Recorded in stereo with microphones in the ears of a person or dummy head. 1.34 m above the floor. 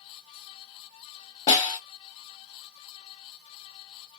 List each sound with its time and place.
1.5 s a snare drum: 25° left (ahead or behind), 1.4 m